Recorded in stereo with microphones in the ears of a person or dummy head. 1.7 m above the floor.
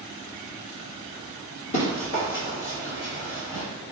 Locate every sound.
1.7 s running footsteps: 30° left (ahead or behind), 1.9 m; by 3.6 s 20° left (ahead or behind), 2 m